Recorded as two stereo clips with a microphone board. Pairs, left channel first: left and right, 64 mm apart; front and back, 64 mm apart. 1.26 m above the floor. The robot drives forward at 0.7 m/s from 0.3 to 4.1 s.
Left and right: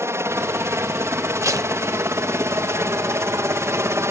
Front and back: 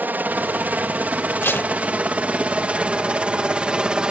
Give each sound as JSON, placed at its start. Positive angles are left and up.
{"t": 0.0, "sound": "a helicopter", "azimuth_deg": -125}
{"t": 1.4, "sound": "tape being pulled", "azimuth_deg": -55}